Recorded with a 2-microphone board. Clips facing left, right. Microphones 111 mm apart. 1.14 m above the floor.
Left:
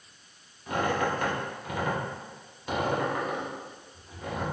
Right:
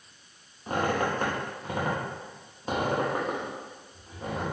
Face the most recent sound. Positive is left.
turn(degrees=-35)  # may be behind; listen again after turning